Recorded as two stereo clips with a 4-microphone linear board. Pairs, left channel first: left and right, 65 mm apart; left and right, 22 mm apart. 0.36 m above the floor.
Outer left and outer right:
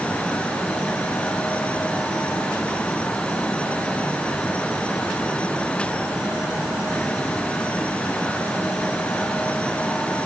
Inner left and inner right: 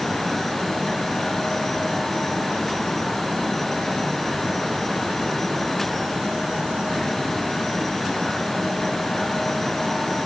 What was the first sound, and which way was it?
Only background noise.